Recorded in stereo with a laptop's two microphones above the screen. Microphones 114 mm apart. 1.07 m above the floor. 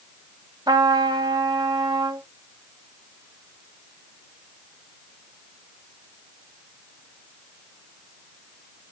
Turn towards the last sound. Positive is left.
turn(degrees=-35)  # may be behind; listen again after turning